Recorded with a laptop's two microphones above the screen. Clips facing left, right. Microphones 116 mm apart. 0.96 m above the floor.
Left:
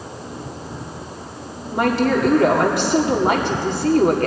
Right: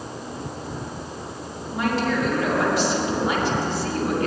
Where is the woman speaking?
60° left (ahead or behind), 2 m.